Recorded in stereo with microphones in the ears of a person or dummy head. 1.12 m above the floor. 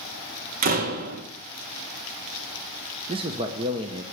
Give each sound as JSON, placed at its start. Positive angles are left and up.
{"t": 0.6, "sound": "a door slam", "side_deg": -50, "distance_m": 1.4}
{"t": 3.1, "sound": "a man speaking", "side_deg": -20, "distance_m": 0.9}